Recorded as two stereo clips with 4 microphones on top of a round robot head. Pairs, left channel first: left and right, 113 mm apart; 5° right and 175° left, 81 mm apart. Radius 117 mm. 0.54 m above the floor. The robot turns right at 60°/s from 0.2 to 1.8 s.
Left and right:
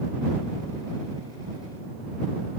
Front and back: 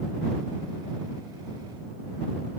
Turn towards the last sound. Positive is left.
No sound to turn to.